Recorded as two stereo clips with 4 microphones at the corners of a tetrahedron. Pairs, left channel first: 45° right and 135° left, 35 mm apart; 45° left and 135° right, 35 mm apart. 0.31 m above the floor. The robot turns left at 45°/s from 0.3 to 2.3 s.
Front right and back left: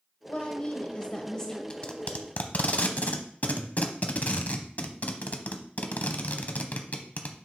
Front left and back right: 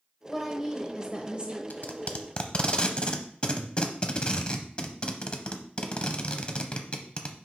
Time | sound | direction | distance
0.2 | a woman speaking | 55° right | 1.0 m
1.7 | tape being pulled | 15° left | 0.8 m